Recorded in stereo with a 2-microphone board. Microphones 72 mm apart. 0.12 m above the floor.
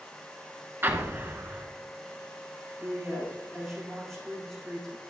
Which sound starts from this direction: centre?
A woman speaking, at 2.8 s.